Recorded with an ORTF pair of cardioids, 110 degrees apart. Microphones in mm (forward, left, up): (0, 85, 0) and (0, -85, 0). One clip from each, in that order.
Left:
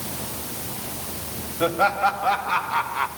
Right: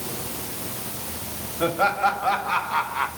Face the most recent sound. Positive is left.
turn(degrees=0)